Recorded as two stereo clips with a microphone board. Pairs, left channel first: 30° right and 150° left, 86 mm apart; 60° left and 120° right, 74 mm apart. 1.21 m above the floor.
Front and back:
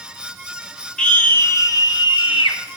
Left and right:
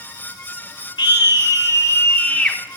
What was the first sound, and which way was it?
A scream, 50° left.